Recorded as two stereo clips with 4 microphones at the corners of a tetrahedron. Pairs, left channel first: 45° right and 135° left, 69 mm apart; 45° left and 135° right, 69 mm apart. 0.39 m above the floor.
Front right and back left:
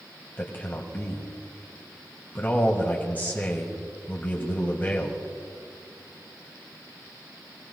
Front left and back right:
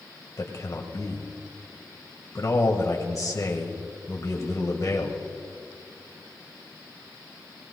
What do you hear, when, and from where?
0.4 s a man speaking: 15° left, 1.6 m